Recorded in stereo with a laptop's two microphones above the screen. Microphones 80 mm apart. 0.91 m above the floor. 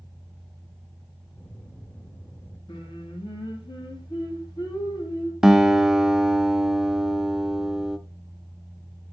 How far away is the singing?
About 2 m.